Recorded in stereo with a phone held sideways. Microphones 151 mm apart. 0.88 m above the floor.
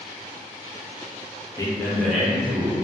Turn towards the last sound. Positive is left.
turn(degrees=-15)  # may be behind; listen again after turning